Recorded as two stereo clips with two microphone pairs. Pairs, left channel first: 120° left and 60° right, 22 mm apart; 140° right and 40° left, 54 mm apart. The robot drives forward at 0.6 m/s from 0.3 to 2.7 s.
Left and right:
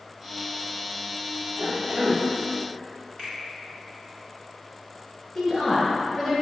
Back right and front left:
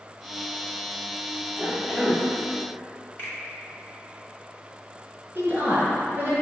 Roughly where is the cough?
Ahead right.